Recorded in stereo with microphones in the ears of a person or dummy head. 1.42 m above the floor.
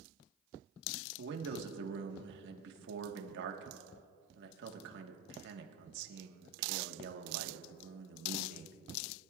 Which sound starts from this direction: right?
A man speaking, at 1.2 s.